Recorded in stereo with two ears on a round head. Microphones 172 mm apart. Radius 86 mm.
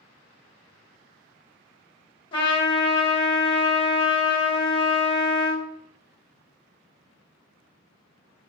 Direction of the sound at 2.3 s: 25° left (ahead or behind).